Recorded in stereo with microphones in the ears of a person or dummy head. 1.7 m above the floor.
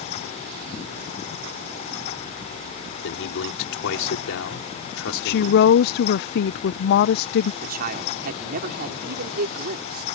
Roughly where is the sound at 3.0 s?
Left.